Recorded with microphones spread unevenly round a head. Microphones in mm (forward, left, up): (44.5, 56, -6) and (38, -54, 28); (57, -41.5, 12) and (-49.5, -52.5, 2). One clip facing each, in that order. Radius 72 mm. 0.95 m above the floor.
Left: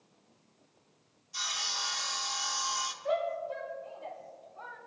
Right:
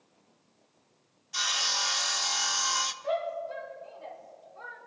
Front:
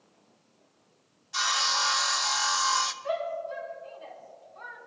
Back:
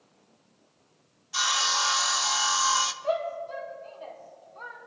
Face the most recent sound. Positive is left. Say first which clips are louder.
# left 1 dB, back 2 dB
turn(degrees=-130)